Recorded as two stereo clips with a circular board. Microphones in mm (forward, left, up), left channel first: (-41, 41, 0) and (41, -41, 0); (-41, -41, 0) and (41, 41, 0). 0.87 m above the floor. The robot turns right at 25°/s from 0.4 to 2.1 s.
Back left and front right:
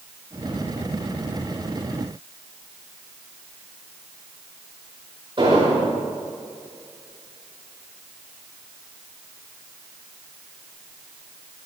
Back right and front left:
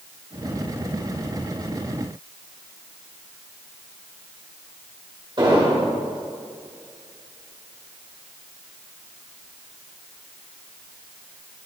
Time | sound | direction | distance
5.4 | an explosion | straight ahead | 4.5 m